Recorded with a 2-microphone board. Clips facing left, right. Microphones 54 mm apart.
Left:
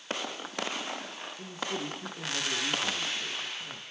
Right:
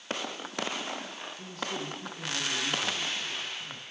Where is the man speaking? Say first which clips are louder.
Left 1 dB; 20° left (ahead or behind), 5.5 m.